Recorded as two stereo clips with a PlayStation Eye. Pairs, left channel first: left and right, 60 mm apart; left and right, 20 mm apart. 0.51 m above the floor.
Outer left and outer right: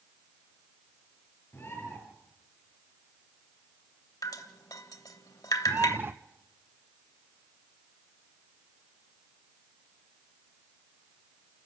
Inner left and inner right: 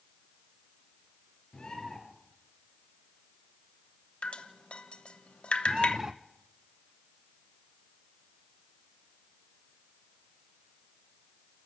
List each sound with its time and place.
1.5 s a bird: 35° left (ahead or behind), 6 m
4.2 s dripping: 70° left (ahead or behind), 1.2 m
5.7 s a bird: 35° right (ahead or behind), 0.7 m